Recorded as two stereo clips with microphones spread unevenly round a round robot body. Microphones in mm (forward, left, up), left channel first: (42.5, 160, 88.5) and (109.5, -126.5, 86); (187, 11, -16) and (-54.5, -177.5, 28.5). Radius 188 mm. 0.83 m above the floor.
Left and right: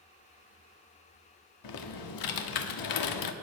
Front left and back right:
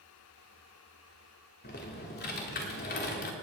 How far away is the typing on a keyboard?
About 1.1 m.